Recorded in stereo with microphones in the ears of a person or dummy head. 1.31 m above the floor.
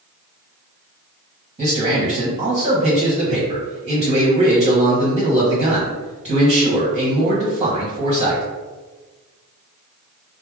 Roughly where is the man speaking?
Right.